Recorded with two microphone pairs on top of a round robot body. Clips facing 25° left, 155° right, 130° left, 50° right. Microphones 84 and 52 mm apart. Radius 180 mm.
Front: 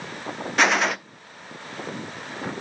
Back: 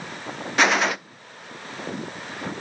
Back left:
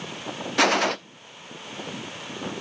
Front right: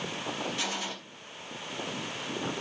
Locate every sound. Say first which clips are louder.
0.6 s a gunshot: back 1 dB, back left 14 dB; 120° left, 0.6 m